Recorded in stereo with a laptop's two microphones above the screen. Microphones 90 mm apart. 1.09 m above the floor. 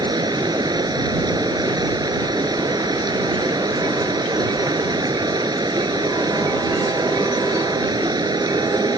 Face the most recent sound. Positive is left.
turn(degrees=-50)  # may be behind; listen again after turning